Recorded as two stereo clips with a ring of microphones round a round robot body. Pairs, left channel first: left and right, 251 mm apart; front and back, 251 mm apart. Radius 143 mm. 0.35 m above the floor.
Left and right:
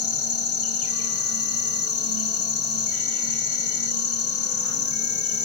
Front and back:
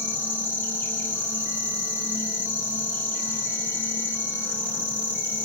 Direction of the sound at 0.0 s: 85° left.